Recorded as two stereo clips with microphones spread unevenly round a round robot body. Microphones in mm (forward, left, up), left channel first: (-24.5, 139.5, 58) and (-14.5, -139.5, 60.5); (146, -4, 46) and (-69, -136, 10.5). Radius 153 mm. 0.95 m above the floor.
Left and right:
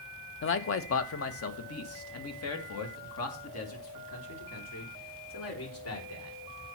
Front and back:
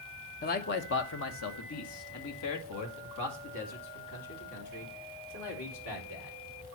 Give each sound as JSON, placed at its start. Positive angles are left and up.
{"t": 0.4, "sound": "a man speaking", "azimuth_deg": 80, "distance_m": 1.1}